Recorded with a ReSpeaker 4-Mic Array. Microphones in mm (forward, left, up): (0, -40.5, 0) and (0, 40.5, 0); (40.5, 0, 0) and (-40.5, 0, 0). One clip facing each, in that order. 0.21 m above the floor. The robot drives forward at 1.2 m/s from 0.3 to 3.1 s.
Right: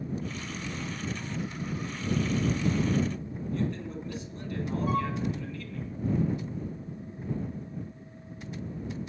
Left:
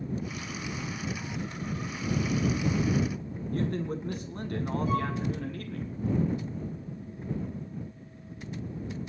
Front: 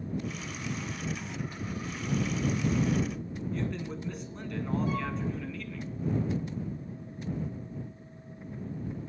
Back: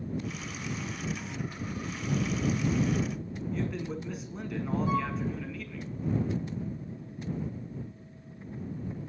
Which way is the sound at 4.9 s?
120° right.